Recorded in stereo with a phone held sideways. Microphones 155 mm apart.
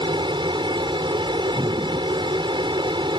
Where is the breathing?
25° right (ahead or behind).